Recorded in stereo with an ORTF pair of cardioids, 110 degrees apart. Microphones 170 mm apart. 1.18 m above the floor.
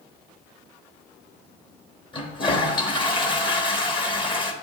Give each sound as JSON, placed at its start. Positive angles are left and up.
{"t": 2.1, "sound": "a toilet flushing", "azimuth_deg": 30, "distance_m": 1.2}